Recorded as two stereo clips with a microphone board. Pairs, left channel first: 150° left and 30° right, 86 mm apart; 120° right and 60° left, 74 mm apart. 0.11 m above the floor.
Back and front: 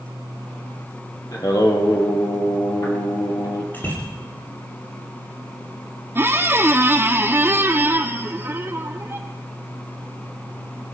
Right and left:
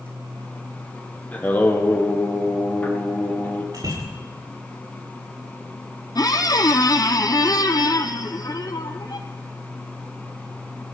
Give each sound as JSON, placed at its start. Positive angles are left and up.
{"t": 1.3, "sound": "singing", "azimuth_deg": 180, "distance_m": 2.0}
{"t": 3.7, "sound": "a bicycle bell", "azimuth_deg": 85, "distance_m": 8.0}
{"t": 6.2, "sound": "a squeak", "azimuth_deg": -90, "distance_m": 0.9}